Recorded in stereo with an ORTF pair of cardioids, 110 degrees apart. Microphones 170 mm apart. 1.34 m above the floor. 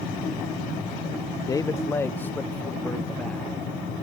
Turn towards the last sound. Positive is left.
turn(degrees=5)